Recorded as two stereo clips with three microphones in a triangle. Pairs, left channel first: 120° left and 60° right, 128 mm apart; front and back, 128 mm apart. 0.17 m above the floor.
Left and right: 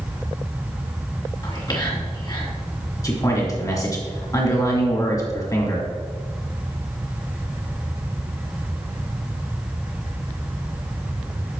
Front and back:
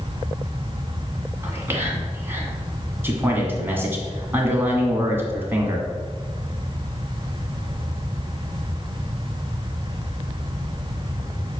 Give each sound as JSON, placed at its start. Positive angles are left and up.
{"t": 1.4, "sound": "whispering", "azimuth_deg": 125, "distance_m": 1.8}
{"t": 3.0, "sound": "a man speaking", "azimuth_deg": 130, "distance_m": 1.6}